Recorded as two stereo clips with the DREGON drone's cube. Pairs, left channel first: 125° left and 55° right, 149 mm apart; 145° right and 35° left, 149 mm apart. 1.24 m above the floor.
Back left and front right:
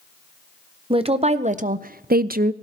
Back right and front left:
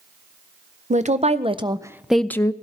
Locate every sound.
0.9 s a woman speaking: 5° right, 0.9 m; by 2.5 s 80° right, 0.5 m